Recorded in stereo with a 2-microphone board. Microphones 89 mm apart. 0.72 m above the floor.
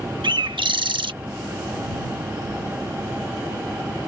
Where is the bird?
80° right.